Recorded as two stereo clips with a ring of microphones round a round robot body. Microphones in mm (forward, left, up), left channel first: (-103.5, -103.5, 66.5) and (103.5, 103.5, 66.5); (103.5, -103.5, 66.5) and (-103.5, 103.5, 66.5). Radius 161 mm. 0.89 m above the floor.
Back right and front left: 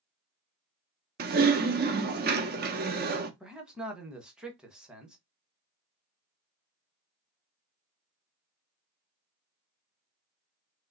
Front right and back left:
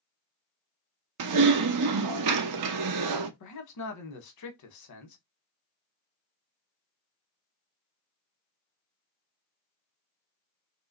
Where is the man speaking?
40° right, 1.1 m.